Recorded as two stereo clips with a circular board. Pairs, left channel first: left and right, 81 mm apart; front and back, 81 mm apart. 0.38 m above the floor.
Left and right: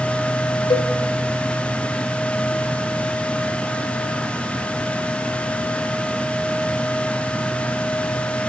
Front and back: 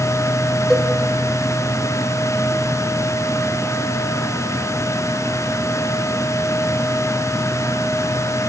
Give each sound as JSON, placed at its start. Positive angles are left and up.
{"t": 0.7, "sound": "a cowbell", "azimuth_deg": 90, "distance_m": 1.1}